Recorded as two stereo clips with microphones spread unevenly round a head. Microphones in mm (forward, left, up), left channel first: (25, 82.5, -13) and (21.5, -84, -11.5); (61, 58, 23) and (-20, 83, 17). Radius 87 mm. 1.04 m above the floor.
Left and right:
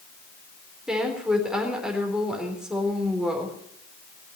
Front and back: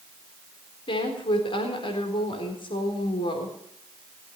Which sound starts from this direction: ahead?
A woman speaking, at 0.9 s.